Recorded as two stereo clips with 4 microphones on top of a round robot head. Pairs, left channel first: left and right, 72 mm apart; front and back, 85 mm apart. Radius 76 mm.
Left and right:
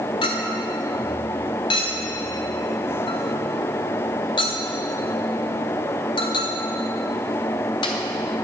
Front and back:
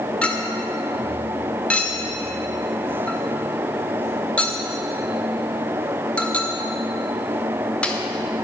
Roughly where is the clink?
Left.